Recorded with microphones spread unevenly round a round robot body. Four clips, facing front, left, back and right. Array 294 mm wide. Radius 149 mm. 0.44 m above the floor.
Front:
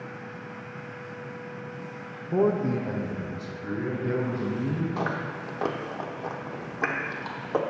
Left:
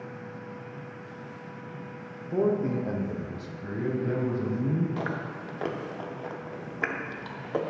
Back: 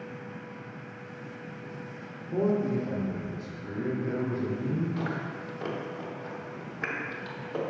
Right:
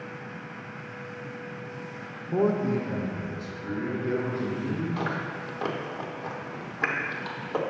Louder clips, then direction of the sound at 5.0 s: Right 2 dB, front 3 dB; 5° left.